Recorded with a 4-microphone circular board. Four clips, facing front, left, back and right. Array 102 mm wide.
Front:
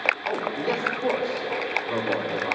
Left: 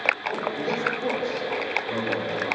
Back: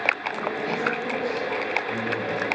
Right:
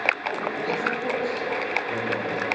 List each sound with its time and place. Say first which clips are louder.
0.3 s a man speaking: even, front 1 dB; 15° left, 4.5 m